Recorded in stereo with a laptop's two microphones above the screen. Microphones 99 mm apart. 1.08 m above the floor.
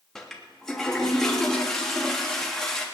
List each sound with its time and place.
0.1 s a toilet flushing: 5° left (ahead or behind), 2.5 m